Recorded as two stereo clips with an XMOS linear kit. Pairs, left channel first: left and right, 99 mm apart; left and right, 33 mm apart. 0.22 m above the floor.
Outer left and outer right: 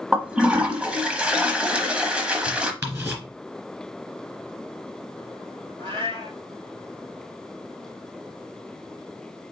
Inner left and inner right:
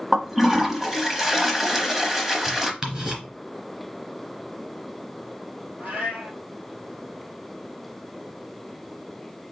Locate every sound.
0.1 s a toilet flushing: 10° right (ahead or behind), 0.7 m
2.8 s ticking: 20° right (ahead or behind), 2.5 m
5.8 s a cat meowing: 55° right (ahead or behind), 1.9 m